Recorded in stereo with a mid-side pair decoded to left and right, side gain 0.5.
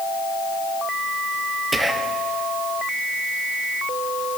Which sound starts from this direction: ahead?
Whispering, at 1.7 s.